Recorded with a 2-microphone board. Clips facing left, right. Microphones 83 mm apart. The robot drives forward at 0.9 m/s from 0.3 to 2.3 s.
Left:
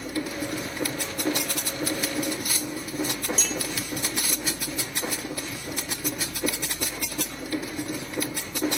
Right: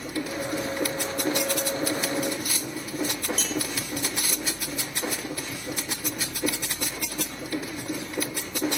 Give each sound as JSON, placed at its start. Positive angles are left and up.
{"t": 3.4, "sound": "a clink", "side_deg": -55, "distance_m": 0.8}